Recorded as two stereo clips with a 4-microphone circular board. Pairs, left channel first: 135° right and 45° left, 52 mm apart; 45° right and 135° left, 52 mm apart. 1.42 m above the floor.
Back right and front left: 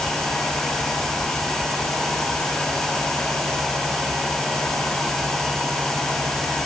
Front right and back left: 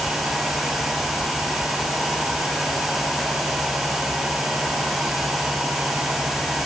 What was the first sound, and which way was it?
Only background noise.